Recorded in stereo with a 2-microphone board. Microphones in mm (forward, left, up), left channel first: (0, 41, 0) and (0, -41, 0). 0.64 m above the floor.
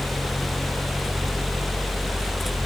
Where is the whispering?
I don't hear whispering.